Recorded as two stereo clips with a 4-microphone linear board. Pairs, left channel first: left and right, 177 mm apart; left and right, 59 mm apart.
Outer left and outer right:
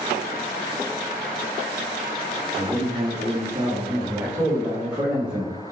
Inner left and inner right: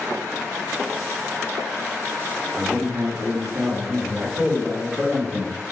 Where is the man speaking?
25° right (ahead or behind), 1.0 m; by 5.5 s centre (ahead or behind), 2.5 m.